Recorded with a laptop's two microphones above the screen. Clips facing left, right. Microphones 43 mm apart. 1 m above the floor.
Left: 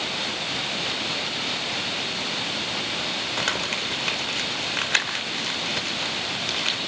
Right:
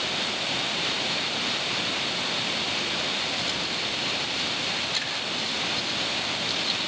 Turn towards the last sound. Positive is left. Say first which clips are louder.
# left 3 dB
turn(degrees=70)  # may be behind; listen again after turning